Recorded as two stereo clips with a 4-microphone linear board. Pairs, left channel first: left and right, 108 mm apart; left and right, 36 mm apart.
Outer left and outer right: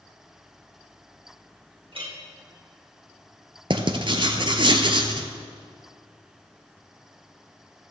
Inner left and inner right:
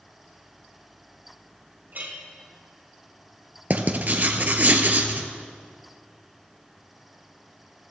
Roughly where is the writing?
Right.